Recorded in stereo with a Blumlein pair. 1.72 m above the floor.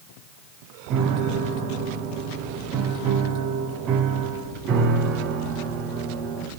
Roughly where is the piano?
Ahead right.